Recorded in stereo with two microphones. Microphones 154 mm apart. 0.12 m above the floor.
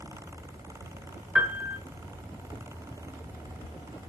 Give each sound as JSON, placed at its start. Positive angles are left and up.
{"t": 1.4, "sound": "a piano", "side_deg": -10, "distance_m": 0.8}